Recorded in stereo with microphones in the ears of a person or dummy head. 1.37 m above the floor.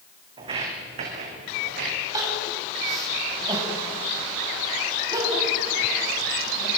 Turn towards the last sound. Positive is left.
turn(degrees=-25)  # may be behind; listen again after turning